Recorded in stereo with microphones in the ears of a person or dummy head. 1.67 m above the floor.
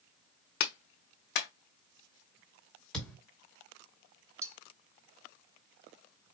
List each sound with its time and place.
0.6 s a clap: 60° left (ahead or behind), 0.6 m
2.9 s a thud: 5° left (ahead or behind), 1.9 m
4.4 s cutlery clinking: 20° right (ahead or behind), 1.5 m